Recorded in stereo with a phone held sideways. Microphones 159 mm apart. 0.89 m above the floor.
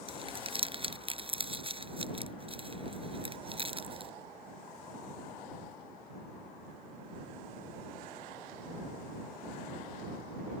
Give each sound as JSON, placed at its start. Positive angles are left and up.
{"t": 0.1, "sound": "crumpling", "side_deg": -35}